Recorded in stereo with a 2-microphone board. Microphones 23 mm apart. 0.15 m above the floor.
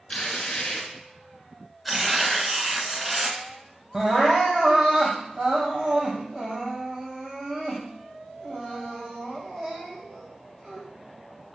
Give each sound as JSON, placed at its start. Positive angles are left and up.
{"t": 0.1, "sound": "tearing paper", "side_deg": 40, "distance_m": 2.0}
{"t": 1.9, "sound": "tearing paper", "side_deg": -10, "distance_m": 1.5}
{"t": 3.9, "sound": "crying", "side_deg": -20, "distance_m": 3.0}